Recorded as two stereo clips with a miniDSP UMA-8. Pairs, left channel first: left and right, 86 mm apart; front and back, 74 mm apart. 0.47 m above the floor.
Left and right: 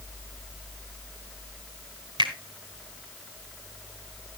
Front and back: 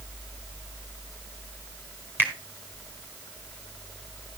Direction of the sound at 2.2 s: 115° right.